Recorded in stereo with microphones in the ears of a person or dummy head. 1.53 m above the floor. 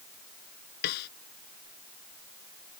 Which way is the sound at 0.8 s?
55° left (ahead or behind).